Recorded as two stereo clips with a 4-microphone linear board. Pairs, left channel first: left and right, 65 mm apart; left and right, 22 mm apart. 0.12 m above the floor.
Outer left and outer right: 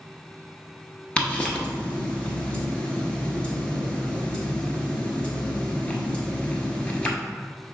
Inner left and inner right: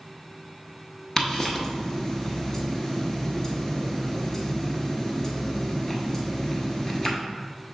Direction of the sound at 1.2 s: 20° left (ahead or behind).